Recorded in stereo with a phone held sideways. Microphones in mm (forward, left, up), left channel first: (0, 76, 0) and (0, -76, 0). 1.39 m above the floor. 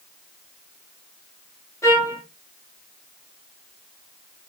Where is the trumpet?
20° left (ahead or behind), 3.5 m.